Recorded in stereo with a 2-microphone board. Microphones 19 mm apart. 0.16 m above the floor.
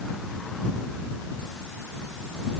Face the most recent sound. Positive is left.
No sound to turn to.